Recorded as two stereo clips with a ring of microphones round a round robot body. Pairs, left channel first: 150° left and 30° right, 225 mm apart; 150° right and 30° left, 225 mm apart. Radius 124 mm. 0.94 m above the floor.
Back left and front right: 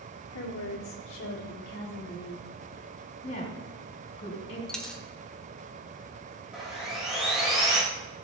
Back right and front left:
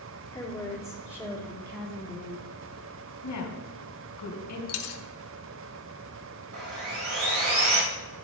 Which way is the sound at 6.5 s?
60° left.